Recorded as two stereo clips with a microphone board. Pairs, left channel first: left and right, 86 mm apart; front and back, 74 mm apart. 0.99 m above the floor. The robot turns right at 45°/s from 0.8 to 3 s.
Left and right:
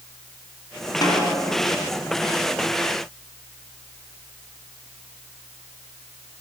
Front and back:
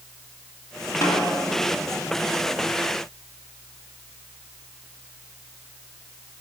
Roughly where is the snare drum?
Ahead left.